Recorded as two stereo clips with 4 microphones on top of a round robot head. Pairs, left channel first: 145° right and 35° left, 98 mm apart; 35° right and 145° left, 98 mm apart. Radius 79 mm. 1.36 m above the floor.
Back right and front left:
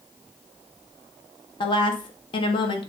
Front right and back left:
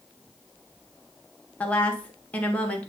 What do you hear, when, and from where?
1.6 s a woman speaking: 110° right, 1.3 m